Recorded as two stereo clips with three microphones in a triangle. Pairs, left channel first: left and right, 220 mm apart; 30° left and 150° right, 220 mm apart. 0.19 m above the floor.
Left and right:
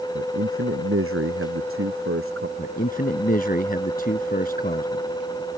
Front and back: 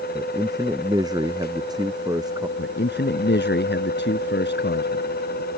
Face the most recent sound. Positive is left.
turn(degrees=50)